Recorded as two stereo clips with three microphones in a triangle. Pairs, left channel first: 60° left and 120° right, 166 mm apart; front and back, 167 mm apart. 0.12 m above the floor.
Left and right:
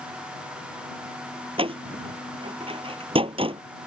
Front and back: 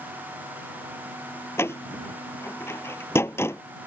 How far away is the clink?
I don't hear a clink.